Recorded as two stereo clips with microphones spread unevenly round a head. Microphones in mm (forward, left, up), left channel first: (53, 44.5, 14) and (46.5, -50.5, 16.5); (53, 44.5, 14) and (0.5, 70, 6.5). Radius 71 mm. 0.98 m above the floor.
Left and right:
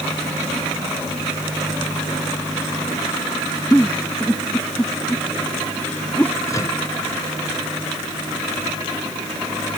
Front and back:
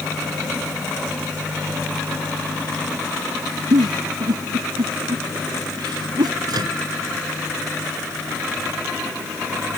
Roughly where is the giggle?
Behind.